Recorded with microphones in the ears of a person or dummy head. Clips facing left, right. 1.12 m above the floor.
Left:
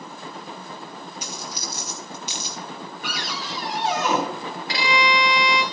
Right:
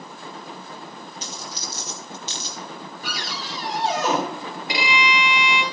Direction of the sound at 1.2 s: 15° left (ahead or behind).